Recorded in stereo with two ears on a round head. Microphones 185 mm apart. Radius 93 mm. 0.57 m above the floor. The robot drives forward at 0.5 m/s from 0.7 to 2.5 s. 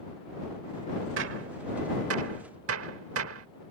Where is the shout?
I don't hear a shout.